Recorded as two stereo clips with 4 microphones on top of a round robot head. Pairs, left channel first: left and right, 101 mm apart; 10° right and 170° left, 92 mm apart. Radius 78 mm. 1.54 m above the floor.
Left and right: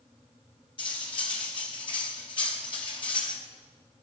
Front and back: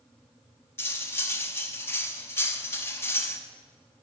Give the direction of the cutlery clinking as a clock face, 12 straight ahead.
10 o'clock.